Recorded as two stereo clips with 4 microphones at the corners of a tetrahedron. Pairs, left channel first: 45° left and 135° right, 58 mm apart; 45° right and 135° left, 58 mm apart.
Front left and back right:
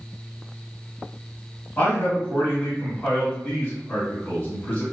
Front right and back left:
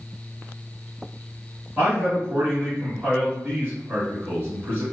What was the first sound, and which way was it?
A man speaking, 95° left.